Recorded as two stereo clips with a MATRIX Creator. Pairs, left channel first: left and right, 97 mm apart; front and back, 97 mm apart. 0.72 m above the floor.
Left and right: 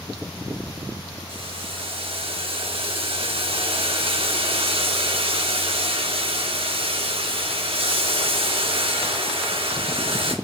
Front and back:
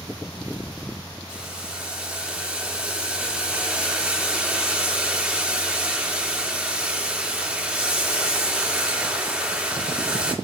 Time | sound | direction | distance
1.3 | boiling | 105° right | 1.8 m